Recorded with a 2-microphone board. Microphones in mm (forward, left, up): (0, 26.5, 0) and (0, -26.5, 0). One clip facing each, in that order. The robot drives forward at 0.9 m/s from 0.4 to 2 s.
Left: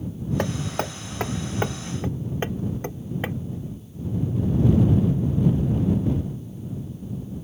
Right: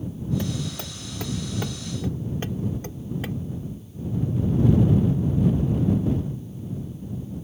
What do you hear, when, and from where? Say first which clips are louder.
0.4 s hammering: left 4 dB; 55° left (ahead or behind); by 3.4 s 30° left (ahead or behind)